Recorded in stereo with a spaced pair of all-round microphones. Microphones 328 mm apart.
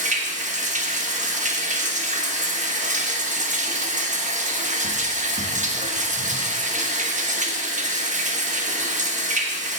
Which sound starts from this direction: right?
Running water, at 0.0 s.